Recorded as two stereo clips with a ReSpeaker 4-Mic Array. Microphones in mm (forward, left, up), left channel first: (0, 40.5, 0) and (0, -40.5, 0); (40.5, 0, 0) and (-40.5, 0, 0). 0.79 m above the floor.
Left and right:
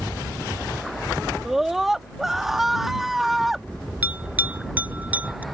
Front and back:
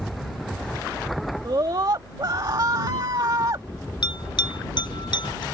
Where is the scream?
175° right.